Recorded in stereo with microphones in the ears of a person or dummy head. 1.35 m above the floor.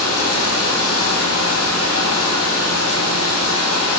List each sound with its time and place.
0.0 s running water: 75° left (ahead or behind), 7.5 m